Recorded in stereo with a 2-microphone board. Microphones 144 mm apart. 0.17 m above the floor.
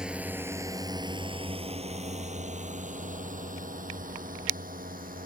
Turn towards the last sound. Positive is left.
turn(degrees=-75)  # may be behind; listen again after turning